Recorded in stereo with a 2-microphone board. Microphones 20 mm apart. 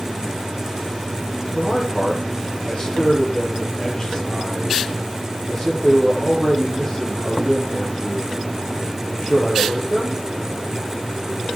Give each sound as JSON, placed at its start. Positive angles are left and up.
{"t": 1.6, "sound": "a man speaking", "side_deg": 35, "distance_m": 7.0}